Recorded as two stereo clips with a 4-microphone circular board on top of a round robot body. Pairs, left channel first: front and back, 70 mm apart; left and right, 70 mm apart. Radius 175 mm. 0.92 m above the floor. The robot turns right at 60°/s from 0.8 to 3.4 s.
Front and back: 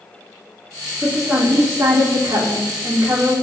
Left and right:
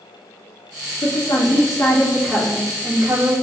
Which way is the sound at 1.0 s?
85° left.